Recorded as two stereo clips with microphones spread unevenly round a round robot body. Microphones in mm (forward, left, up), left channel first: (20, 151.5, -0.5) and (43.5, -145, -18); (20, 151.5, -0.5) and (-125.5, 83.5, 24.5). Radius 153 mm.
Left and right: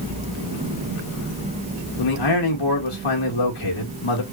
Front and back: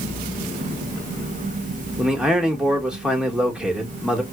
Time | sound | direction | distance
2.0 | a man speaking | 115° left | 2 m